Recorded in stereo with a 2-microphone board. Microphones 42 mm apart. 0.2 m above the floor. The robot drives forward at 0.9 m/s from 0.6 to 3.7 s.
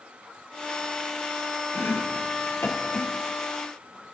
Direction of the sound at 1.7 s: 75° left (ahead or behind).